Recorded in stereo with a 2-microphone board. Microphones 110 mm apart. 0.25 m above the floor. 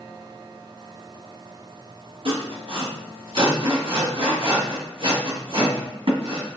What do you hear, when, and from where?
2.2 s sawing: 55° right (ahead or behind), 1.4 m